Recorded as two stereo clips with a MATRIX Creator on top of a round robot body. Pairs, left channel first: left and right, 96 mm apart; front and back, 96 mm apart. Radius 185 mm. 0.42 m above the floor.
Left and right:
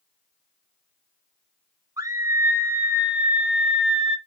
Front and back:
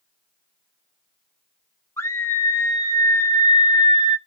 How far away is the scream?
About 1.9 m.